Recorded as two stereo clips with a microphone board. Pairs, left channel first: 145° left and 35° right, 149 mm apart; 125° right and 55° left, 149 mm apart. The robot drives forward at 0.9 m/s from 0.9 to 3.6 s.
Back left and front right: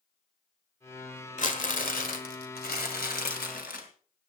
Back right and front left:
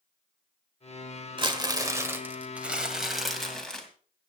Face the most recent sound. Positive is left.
turn(degrees=150)